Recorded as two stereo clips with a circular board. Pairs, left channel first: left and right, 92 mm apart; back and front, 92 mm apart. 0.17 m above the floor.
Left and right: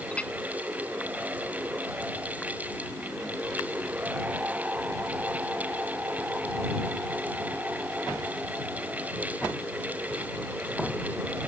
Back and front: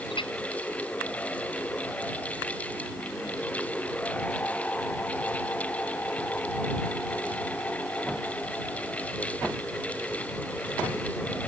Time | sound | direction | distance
0.1 | a clink | 165° left | ?